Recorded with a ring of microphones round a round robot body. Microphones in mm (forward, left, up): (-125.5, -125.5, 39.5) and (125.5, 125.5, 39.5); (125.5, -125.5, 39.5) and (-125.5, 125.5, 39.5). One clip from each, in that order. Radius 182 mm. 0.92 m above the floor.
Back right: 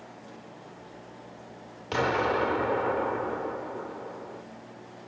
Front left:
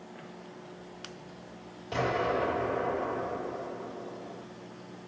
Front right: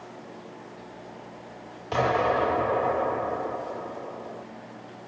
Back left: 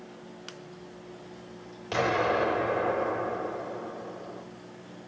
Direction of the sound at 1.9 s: 155° right.